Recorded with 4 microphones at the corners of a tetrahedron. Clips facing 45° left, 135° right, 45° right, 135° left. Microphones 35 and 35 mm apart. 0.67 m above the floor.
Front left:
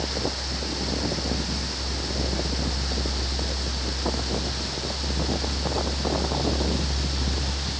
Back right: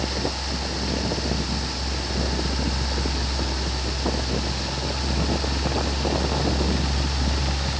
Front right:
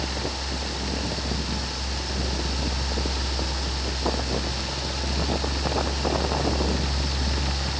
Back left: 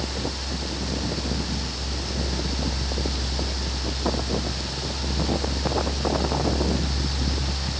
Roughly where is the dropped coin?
No dropped coin in this recording.